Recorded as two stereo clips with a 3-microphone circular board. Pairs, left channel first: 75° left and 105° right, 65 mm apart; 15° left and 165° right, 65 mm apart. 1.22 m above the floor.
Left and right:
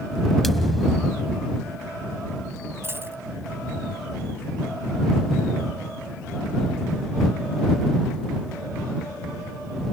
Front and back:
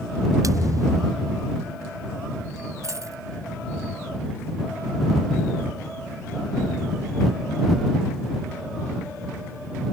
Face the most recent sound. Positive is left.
turn(degrees=-150)